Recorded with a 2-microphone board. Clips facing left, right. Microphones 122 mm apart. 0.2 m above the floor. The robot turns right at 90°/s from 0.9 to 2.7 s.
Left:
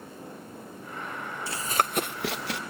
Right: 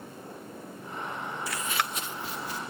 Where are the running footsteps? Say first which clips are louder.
Left 6 dB; 30° left (ahead or behind), 0.6 m; by 2.6 s 75° left (ahead or behind), 1.4 m.